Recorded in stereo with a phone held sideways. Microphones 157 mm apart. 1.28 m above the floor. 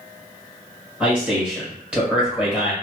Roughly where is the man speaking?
Centre.